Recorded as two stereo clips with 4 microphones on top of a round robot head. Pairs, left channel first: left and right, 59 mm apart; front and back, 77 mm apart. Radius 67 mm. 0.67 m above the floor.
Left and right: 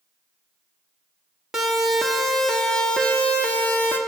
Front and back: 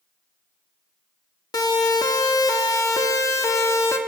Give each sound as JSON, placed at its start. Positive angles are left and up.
{"t": 1.5, "sound": "a siren", "azimuth_deg": -10, "distance_m": 2.5}